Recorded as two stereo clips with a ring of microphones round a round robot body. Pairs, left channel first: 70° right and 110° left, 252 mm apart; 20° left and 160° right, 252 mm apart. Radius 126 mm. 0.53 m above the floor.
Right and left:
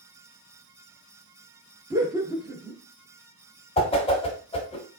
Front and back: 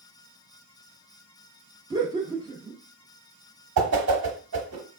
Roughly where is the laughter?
Behind.